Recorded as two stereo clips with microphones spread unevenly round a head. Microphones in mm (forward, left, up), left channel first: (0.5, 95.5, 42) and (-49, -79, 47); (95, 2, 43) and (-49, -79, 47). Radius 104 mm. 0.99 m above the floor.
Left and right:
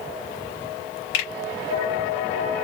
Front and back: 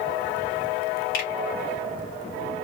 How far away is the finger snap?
About 2.5 m.